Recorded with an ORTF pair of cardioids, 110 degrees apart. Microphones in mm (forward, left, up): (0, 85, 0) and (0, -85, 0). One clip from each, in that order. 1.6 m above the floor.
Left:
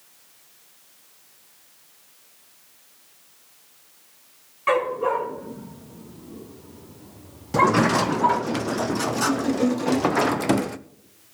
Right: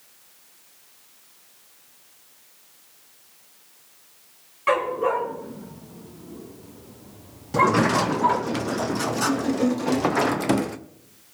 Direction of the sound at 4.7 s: 5° right.